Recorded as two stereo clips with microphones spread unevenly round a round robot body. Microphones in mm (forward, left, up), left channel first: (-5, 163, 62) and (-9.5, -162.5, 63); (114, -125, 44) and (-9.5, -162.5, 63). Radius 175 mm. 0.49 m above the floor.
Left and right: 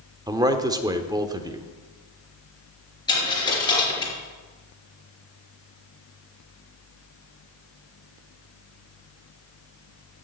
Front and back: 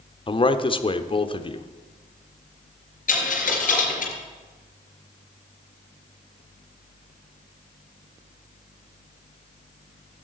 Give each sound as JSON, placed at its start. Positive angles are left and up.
{"t": 0.3, "sound": "a man speaking", "azimuth_deg": -15, "distance_m": 1.1}
{"t": 3.1, "sound": "a dropped coin", "azimuth_deg": 10, "distance_m": 4.0}